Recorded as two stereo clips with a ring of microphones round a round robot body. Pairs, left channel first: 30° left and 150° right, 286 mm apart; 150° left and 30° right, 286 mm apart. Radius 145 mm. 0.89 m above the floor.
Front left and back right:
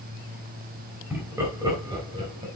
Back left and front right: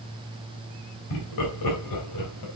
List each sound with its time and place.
1.1 s laughter: 125° left, 3.5 m; by 2.5 s 140° left, 4.5 m